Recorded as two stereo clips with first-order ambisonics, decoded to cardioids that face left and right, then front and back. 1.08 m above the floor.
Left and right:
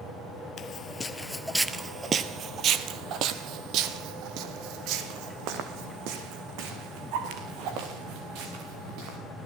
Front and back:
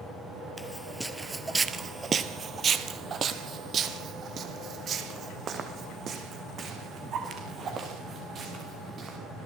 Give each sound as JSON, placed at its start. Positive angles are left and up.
{"t": 0.6, "sound": "footsteps", "azimuth_deg": 80, "distance_m": 1.2}